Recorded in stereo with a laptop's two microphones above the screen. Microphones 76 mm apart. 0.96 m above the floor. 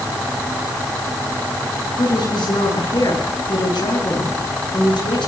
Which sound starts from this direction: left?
A woman speaking, at 2.0 s.